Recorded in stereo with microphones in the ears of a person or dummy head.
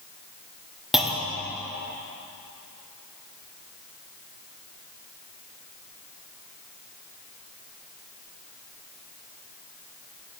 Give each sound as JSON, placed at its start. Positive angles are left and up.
{"t": 0.9, "sound": "a clunk", "side_deg": 0, "distance_m": 0.7}